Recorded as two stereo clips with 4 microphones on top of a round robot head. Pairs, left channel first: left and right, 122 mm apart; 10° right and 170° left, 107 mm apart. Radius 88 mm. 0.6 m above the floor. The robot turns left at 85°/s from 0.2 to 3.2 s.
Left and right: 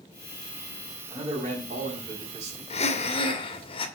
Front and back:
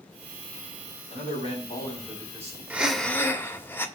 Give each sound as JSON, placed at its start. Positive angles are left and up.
{"t": 1.1, "sound": "a man speaking", "azimuth_deg": -10, "distance_m": 4.0}
{"t": 2.7, "sound": "breathing", "azimuth_deg": 100, "distance_m": 1.7}